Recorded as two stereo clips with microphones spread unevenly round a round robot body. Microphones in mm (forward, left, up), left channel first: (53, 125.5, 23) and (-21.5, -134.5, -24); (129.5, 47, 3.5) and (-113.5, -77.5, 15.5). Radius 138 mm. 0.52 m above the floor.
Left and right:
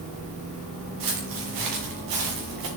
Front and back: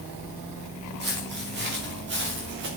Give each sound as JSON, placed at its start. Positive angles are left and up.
{"t": 1.0, "sound": "footsteps", "azimuth_deg": -100, "distance_m": 4.5}